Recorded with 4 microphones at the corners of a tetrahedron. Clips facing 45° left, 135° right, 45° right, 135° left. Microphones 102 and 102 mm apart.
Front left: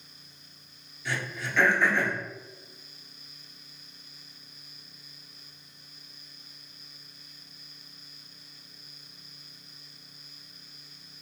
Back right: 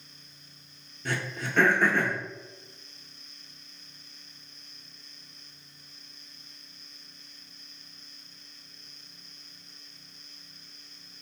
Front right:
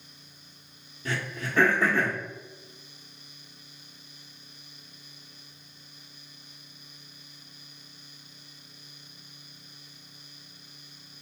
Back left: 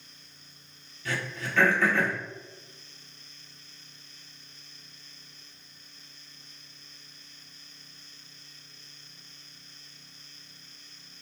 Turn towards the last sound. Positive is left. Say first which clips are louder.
# back right 1 dB, front right 1 dB
turn(degrees=-100)